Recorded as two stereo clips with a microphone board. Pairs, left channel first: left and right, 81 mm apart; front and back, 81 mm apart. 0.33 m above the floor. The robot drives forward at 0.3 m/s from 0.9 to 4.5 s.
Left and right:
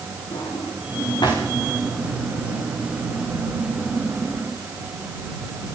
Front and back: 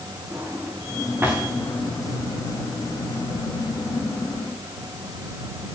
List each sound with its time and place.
0.3 s a drawer: 110° left, 7 m